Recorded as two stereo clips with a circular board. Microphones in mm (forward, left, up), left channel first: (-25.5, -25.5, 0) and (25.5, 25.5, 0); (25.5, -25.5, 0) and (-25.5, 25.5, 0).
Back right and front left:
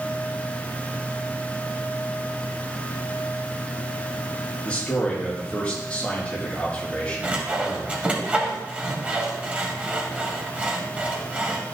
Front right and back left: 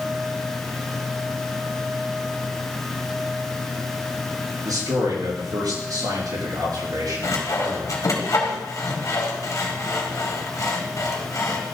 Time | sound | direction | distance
4.6 | a man speaking | 150° left | 5.5 m
7.2 | sawing | 25° right | 1.8 m